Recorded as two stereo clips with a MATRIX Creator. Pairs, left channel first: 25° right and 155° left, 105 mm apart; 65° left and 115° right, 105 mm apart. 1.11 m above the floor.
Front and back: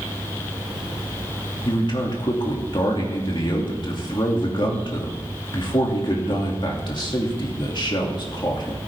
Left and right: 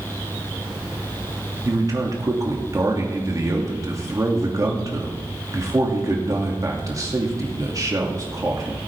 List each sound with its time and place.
1.6 s a man speaking: 60° right, 2.5 m